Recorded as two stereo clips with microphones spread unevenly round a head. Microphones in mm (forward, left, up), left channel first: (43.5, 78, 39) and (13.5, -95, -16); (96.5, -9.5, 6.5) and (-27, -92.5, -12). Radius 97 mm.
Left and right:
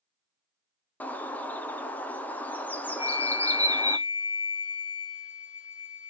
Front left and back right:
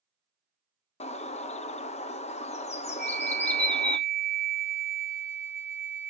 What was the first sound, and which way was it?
A bird, 10° right.